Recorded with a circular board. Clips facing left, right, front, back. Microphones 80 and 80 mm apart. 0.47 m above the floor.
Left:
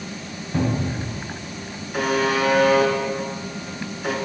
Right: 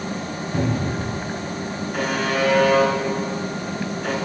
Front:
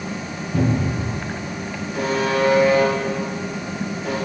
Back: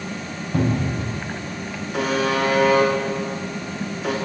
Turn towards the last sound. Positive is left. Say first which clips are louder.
# left 2 dB, front 1 dB
turn(degrees=175)